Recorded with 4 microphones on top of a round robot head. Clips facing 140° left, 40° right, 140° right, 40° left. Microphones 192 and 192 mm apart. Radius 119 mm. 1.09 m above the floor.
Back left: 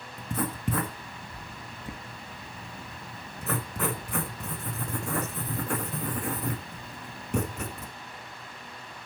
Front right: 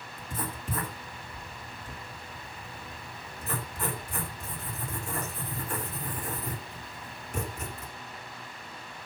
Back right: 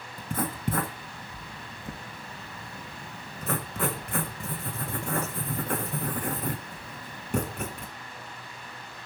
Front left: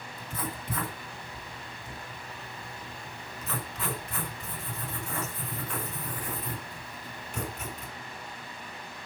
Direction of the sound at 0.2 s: 175° left.